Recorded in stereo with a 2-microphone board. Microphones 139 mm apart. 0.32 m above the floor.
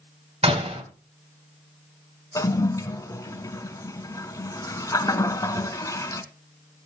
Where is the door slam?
45° right (ahead or behind), 1.7 m.